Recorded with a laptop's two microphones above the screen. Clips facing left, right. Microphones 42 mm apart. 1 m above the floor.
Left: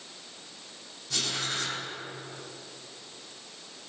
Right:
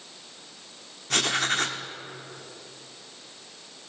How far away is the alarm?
No alarm in this recording.